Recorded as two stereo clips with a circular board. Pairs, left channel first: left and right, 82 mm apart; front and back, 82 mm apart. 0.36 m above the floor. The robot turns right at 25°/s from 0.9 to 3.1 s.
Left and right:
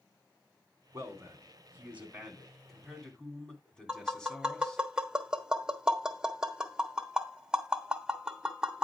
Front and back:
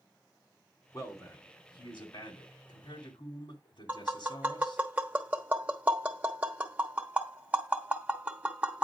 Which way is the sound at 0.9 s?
45° right.